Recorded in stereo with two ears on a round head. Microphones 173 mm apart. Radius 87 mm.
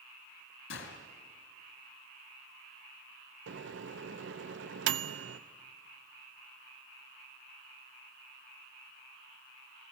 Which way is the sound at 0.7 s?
75° left (ahead or behind).